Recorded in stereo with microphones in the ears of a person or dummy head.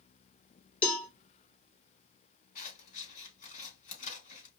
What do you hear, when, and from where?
0.8 s a cowbell: 10° left (ahead or behind), 2.5 m
2.5 s scissors: 45° left (ahead or behind), 2.5 m